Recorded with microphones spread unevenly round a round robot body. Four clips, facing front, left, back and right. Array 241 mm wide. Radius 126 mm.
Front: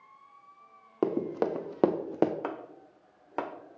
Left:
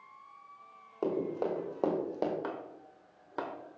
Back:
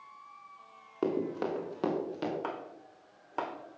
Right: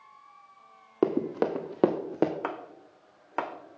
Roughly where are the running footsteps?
Right.